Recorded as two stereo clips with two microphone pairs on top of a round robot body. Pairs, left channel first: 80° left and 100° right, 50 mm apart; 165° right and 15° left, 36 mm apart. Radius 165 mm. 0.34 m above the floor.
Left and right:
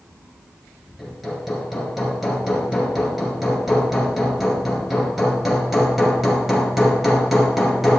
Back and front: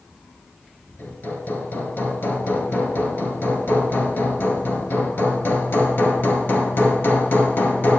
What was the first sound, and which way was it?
Hammering, 175° left.